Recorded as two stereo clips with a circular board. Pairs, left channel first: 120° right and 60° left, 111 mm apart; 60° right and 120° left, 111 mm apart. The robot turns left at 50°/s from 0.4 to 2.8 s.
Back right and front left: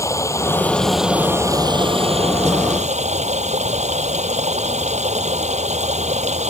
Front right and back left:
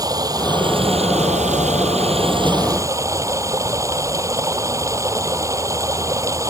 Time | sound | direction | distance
0.0 | running water | 175° left | ?